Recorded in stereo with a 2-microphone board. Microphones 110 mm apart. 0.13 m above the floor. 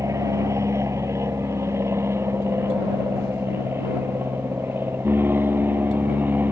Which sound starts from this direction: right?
An aircraft, at 0.0 s.